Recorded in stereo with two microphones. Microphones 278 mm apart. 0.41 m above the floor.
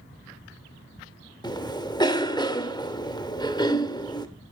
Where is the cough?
15° left (ahead or behind), 1.1 m.